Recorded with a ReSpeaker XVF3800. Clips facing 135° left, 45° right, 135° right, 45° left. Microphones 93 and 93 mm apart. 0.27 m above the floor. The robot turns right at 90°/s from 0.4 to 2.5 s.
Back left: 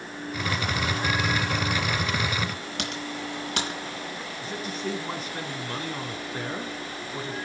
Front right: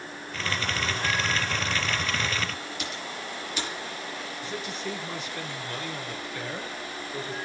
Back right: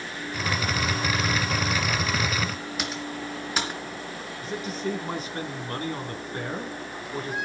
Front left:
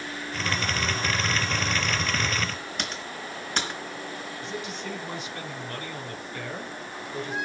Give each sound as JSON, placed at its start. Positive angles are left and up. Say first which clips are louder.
{"t": 2.8, "sound": "typing on a keyboard", "louder": "back left 3 dB, back right 3 dB", "azimuth_deg": 140, "distance_m": 3.5}
{"t": 4.4, "sound": "a man speaking", "louder": "back left 3 dB, back right 7 dB", "azimuth_deg": 180, "distance_m": 3.0}